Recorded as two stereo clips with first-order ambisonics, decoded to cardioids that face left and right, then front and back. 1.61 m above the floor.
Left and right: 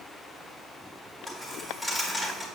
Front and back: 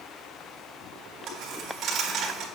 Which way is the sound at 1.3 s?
Straight behind.